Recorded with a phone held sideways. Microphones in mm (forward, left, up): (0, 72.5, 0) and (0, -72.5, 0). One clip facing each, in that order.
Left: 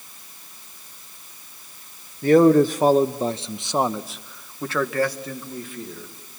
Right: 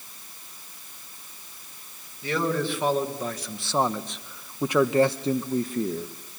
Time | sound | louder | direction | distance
2.2 | a man speaking | left 13 dB | 50° left (ahead or behind) | 1.4 m